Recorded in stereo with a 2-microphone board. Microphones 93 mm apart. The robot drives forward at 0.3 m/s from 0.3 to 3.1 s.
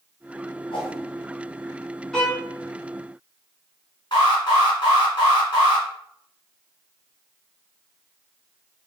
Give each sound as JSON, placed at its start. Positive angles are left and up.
{"t": 0.7, "sound": "a whoosh", "side_deg": 65, "distance_m": 2.0}
{"t": 2.1, "sound": "a violin", "side_deg": 5, "distance_m": 1.2}
{"t": 4.1, "sound": "an alarm", "side_deg": 50, "distance_m": 2.0}